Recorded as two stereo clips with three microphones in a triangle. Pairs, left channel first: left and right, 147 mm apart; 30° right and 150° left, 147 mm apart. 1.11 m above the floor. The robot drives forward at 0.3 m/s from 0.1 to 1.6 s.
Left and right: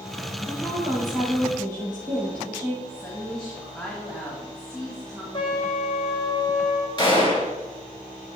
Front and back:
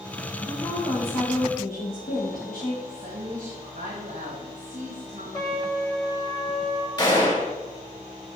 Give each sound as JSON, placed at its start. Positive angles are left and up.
{"t": 0.5, "sound": "a woman speaking", "azimuth_deg": -25, "distance_m": 2.0}
{"t": 2.9, "sound": "a woman speaking", "azimuth_deg": 180, "distance_m": 1.5}
{"t": 5.3, "sound": "a trumpet", "azimuth_deg": 35, "distance_m": 1.3}
{"t": 7.0, "sound": "a gunshot", "azimuth_deg": 30, "distance_m": 2.5}